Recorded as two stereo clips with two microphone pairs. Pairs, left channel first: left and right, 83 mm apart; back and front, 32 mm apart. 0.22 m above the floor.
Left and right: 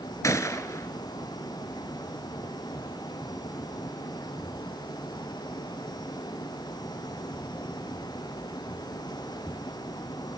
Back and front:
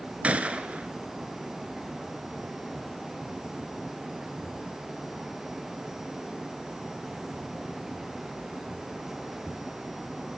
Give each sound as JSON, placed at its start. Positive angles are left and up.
{"t": 0.2, "sound": "a gunshot", "azimuth_deg": 40, "distance_m": 1.0}